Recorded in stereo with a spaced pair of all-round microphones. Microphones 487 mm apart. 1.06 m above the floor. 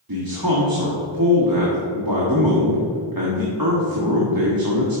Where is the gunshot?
I don't hear a gunshot.